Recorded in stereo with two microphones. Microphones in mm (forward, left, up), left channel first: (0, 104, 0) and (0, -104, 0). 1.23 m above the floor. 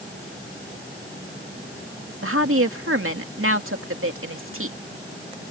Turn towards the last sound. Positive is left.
turn(degrees=-85)